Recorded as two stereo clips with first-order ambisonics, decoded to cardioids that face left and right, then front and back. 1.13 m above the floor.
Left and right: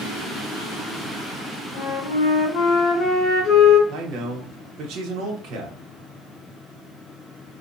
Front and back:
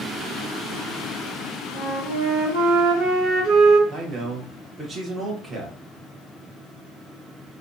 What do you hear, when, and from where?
1.7 s a flute: 140° left, 1.0 m
3.9 s a man speaking: 115° right, 0.9 m